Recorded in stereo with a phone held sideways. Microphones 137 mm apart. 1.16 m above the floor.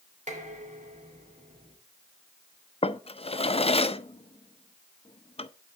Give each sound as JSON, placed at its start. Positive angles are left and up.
{"t": 0.3, "sound": "dishes clattering", "side_deg": -60, "distance_m": 3.0}
{"t": 2.8, "sound": "a drawer", "side_deg": 45, "distance_m": 0.5}